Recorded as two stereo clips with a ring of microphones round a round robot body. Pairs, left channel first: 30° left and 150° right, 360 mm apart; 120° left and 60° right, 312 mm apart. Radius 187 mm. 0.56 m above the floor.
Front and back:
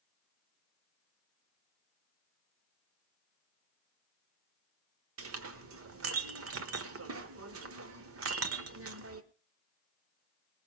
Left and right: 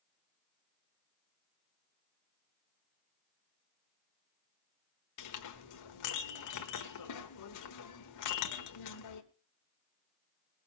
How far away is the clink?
About 1.3 m.